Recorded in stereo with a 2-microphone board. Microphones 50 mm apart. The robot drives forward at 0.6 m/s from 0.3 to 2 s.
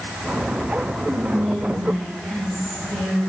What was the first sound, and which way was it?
Whispering, 15° right (ahead or behind).